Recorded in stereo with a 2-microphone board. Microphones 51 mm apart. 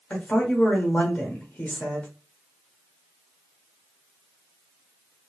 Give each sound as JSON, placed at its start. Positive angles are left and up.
{"t": 0.1, "sound": "a woman speaking", "side_deg": 35, "distance_m": 1.1}